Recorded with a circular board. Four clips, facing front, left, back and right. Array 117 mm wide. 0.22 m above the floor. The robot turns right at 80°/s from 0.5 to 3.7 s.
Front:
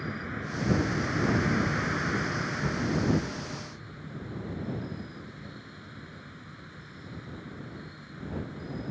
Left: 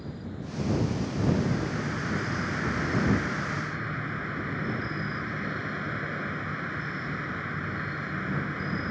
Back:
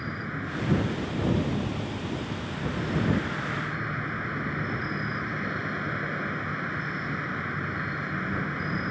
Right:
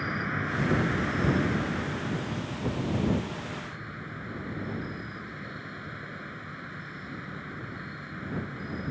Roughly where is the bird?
I don't hear a bird.